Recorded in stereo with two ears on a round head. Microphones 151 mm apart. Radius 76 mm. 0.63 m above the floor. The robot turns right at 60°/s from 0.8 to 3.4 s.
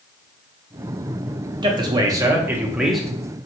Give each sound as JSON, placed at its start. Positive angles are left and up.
{"t": 1.6, "sound": "a man speaking", "side_deg": -25, "distance_m": 0.6}